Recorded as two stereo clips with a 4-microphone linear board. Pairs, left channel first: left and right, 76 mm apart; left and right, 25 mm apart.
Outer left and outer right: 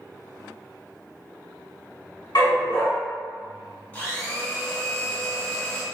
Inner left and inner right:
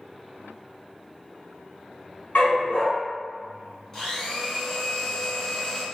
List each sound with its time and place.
2.4 s a dog barking: 70° left (ahead or behind), 1.7 m
3.9 s a blender: 25° left (ahead or behind), 1.5 m